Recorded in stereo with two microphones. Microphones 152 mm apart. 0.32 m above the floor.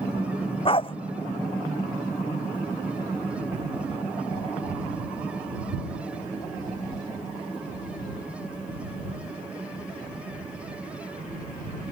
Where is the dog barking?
35° left (ahead or behind).